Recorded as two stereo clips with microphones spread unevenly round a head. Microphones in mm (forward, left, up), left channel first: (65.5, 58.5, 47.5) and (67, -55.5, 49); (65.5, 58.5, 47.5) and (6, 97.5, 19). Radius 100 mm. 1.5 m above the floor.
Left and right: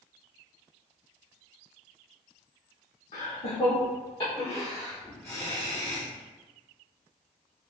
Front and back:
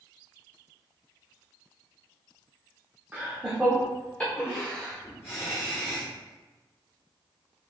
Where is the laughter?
75° left, 1.0 m; by 6.1 s 20° left, 1.9 m.